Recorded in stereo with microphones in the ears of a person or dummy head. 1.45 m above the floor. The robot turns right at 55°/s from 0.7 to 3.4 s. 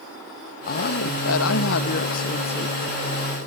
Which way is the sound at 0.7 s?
55° left.